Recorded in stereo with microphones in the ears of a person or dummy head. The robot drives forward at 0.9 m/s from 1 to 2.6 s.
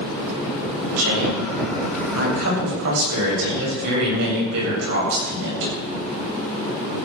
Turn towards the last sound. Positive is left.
turn(degrees=-85)